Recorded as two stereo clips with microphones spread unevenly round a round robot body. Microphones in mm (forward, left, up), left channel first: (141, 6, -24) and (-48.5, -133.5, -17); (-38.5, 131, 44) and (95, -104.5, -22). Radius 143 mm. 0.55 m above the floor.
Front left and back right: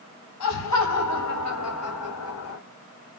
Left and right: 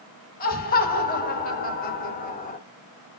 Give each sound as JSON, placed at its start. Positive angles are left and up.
{"t": 0.4, "sound": "laughter", "azimuth_deg": 60, "distance_m": 4.5}